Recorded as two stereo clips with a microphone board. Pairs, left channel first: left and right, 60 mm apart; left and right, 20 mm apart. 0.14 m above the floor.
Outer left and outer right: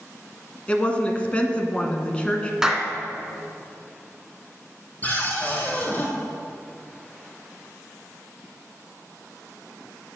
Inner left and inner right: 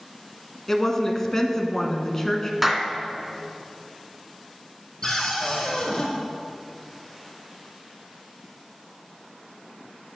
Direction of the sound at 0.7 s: 20° left (ahead or behind).